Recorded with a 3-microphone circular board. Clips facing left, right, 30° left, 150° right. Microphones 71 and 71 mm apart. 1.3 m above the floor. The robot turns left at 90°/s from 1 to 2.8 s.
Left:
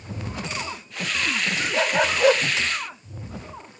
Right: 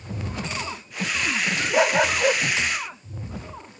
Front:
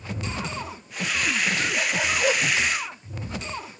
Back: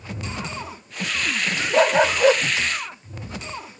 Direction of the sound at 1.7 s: 155° right.